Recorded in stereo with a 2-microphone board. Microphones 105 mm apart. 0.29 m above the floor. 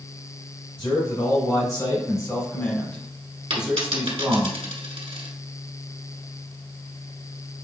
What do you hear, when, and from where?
0.8 s a man speaking: 55° left (ahead or behind), 2.5 m; by 4.5 s 30° right (ahead or behind), 1.6 m
3.5 s a dropped coin: 65° right (ahead or behind), 1.5 m